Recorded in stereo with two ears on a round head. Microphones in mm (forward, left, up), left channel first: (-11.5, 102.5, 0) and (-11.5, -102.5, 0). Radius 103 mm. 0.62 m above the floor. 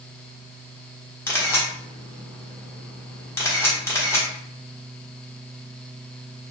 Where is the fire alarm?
I don't hear a fire alarm.